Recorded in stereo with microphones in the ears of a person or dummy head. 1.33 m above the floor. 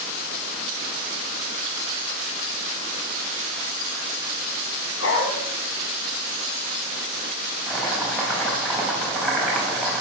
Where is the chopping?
5° left (ahead or behind), 5 m.